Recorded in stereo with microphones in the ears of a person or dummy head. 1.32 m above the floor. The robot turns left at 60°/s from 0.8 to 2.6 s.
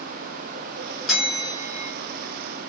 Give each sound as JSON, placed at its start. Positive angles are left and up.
{"t": 1.1, "sound": "a bell", "azimuth_deg": -175, "distance_m": 0.9}